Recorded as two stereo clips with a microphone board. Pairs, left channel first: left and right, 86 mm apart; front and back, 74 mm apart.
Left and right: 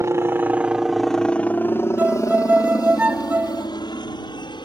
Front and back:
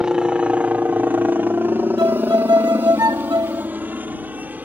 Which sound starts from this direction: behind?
A violin, at 2.0 s.